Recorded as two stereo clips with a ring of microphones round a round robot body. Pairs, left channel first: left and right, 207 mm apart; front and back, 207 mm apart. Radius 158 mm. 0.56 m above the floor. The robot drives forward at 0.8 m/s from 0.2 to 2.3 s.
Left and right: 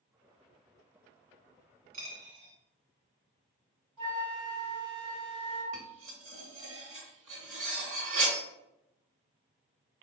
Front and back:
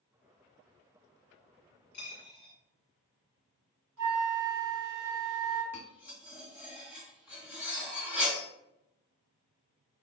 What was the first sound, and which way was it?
A dropped coin, 65° right.